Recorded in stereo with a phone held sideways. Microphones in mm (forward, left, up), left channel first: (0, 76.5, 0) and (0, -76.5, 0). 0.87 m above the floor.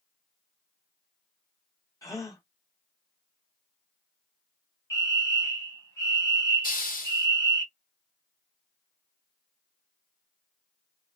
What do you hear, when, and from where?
2.0 s a gasp: 20° left (ahead or behind), 1.4 m
4.9 s a fire alarm: 20° left (ahead or behind), 2 m
6.6 s a hiss: 65° left (ahead or behind), 1.3 m